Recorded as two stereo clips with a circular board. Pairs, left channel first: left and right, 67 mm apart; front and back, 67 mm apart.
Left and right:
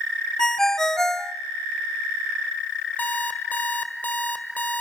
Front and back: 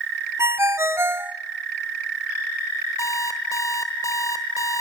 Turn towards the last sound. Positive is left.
turn(degrees=25)